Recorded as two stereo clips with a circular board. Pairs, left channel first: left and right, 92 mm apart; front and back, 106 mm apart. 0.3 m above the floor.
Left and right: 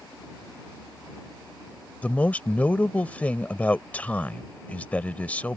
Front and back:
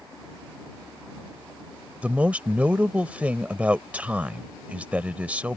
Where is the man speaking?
130° left.